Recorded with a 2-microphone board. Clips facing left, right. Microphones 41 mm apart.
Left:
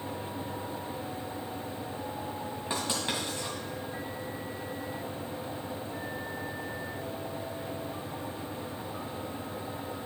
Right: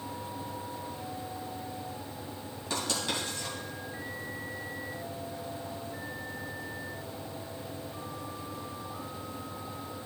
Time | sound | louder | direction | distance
2.7 | writing | even | 20° left (ahead or behind) | 3 m